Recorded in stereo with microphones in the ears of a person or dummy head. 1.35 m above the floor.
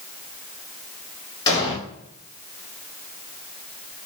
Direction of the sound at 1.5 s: 20° left (ahead or behind).